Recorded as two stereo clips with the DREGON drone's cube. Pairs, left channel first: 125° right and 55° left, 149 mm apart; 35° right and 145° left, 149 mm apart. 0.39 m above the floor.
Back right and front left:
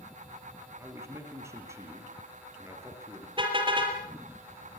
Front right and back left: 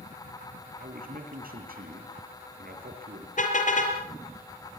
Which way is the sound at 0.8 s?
130° left.